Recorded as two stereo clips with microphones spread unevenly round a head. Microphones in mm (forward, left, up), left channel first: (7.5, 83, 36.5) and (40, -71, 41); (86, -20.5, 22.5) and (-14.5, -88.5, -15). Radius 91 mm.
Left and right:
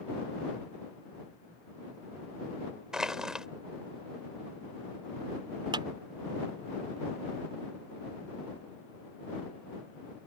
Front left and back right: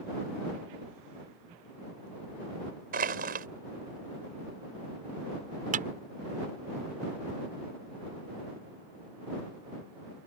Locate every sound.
2.9 s crushing: 165° right
5.7 s a clap: 145° right